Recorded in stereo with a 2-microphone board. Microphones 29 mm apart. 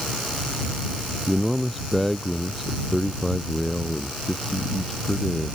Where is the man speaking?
5° left (ahead or behind); by 5.6 s 20° left (ahead or behind).